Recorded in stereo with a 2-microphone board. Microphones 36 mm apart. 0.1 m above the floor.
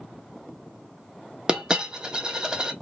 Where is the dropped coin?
20° right (ahead or behind), 0.5 m.